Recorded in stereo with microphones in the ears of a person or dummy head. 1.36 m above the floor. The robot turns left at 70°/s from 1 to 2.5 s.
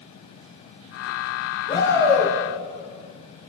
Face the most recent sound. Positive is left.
turn(degrees=-25)